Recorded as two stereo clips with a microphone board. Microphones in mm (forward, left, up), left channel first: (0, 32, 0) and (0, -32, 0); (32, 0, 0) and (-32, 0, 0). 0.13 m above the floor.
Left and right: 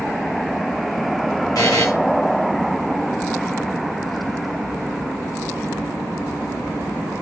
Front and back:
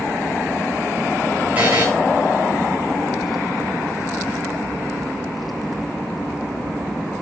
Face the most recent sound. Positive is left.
turn(degrees=115)